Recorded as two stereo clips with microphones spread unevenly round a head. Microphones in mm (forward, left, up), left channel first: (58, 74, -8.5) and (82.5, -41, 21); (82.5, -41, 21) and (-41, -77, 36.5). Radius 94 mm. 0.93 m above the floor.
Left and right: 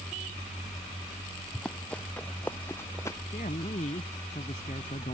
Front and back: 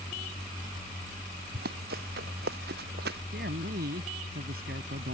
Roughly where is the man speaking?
Behind.